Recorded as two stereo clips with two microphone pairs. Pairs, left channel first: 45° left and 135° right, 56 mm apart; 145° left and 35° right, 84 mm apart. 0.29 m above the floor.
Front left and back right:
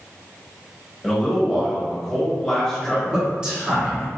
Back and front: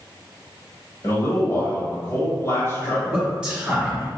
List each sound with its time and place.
1.0 s a man speaking: 140° left, 1.5 m
2.8 s a man speaking: 90° right, 1.6 m